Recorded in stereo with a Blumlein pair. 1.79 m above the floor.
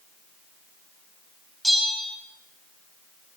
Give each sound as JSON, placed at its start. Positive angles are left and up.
{"t": 1.6, "sound": "a bell", "azimuth_deg": 0, "distance_m": 5.0}